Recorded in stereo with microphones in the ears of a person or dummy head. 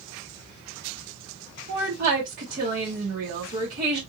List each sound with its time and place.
1.7 s a woman speaking: 50° right (ahead or behind), 1.5 m